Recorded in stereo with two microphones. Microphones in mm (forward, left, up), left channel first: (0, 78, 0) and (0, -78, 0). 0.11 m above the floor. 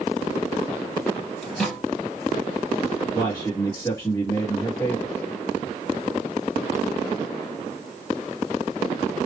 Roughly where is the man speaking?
Left.